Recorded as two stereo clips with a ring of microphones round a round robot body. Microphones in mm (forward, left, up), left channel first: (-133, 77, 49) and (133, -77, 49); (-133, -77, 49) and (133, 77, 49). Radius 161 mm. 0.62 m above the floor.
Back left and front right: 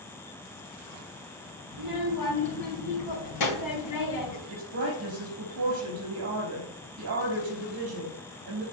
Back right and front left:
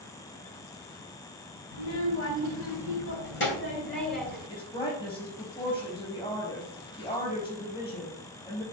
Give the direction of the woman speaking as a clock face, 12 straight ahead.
3 o'clock.